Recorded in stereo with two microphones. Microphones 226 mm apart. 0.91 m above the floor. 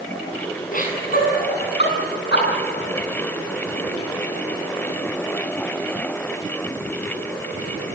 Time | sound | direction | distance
0.7 | laughter | 35° left (ahead or behind) | 8.5 m